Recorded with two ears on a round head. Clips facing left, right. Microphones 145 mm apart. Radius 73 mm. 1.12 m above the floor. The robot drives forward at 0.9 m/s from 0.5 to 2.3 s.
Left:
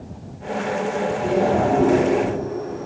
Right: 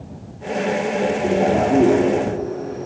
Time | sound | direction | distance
1.2 | a man speaking | 25° right (ahead or behind) | 2.5 m